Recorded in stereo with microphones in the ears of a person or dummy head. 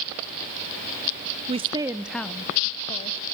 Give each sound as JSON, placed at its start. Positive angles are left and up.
{"t": 1.5, "sound": "a woman speaking", "side_deg": -25, "distance_m": 0.5}